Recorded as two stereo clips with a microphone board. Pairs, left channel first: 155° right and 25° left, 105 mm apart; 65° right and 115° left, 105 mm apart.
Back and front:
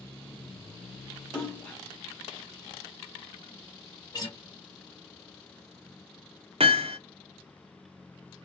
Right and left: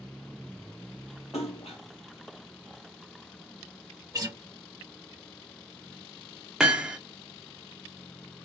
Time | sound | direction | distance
1.3 | a splash | 80° right | 1.2 m
4.1 | a guitar | 165° left | 1.3 m
6.6 | hammering | 30° left | 0.5 m